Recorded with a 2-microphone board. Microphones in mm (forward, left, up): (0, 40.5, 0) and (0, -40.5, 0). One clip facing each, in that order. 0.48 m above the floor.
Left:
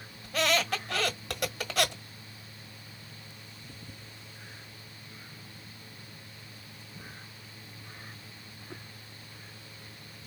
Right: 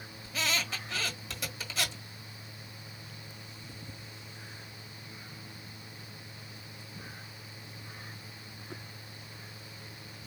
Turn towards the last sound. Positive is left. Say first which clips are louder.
# left 7 dB
turn(degrees=60)  # may be behind; listen again after turning